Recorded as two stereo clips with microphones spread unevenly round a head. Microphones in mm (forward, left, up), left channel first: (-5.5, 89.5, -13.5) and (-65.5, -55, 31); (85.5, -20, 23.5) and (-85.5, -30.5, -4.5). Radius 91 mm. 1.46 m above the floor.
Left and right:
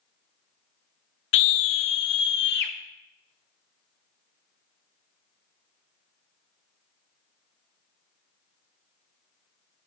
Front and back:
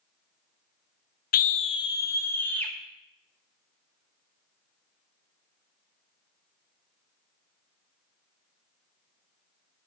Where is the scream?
35° left, 0.5 m; by 2.7 s 85° left, 1.5 m.